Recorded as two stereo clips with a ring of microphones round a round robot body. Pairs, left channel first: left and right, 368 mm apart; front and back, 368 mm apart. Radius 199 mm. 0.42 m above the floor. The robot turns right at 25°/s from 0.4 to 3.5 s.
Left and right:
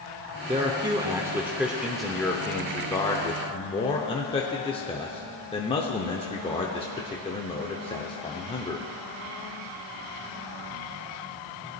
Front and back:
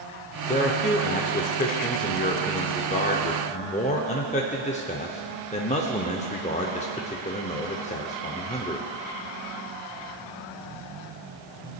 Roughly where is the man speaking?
Ahead right.